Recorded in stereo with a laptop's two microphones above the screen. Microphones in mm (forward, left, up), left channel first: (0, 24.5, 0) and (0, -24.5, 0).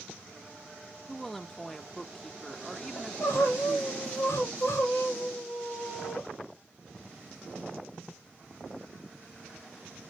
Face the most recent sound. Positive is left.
turn(degrees=70)  # may be behind; listen again after turning